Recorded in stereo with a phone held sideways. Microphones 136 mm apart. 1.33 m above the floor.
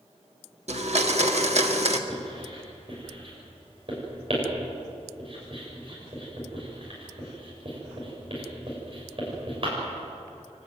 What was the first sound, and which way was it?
A blender, 60° right (ahead or behind).